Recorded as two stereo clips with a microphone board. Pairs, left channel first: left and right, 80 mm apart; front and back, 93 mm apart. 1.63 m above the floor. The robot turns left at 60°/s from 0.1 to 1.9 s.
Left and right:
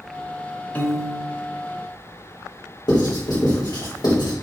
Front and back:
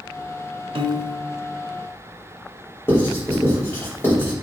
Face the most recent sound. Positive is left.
turn(degrees=65)